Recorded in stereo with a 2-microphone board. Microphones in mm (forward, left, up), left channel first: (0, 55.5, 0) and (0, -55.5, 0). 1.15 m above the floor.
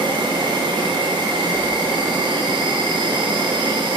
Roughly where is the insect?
Right.